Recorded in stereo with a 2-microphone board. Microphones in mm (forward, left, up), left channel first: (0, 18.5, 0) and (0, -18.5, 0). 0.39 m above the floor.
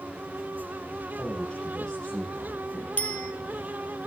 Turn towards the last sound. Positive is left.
turn(degrees=45)  # may be behind; listen again after turning